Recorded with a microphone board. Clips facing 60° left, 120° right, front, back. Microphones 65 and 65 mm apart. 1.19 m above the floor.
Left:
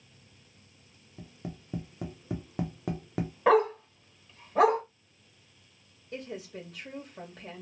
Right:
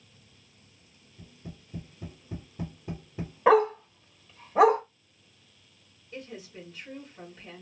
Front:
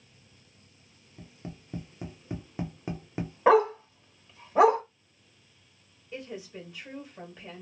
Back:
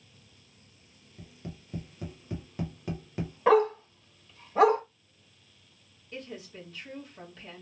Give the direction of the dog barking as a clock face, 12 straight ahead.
2 o'clock.